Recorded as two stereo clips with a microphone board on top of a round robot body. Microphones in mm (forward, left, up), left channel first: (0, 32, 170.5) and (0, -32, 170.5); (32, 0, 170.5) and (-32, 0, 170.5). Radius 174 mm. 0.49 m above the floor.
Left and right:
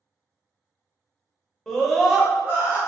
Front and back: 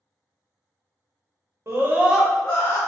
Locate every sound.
1.7 s a scream: 170° left, 1.0 m; by 2.8 s 35° right, 1.0 m